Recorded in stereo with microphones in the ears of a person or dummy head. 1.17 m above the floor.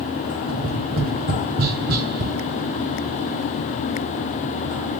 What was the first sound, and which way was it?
Tapping, 50° right (ahead or behind).